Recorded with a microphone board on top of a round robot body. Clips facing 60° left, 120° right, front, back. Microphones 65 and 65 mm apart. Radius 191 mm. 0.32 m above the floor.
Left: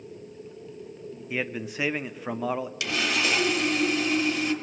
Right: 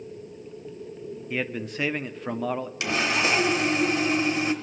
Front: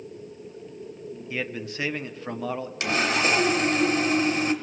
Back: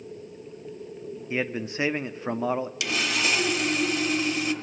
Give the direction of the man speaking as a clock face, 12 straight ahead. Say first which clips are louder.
Right 1 dB, back 3 dB; 7 o'clock.